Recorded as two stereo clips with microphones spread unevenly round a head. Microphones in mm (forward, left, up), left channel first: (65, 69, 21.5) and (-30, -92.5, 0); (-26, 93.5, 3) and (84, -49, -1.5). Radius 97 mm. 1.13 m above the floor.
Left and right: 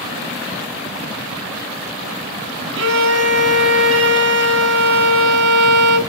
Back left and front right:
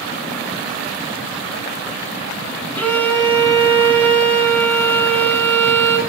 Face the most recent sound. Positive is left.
turn(degrees=-150)